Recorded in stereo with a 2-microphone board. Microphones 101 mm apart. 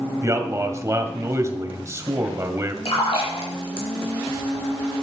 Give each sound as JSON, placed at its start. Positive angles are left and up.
{"t": 0.2, "sound": "a man speaking", "side_deg": -30, "distance_m": 1.9}
{"t": 2.9, "sound": "a splash", "side_deg": 60, "distance_m": 4.5}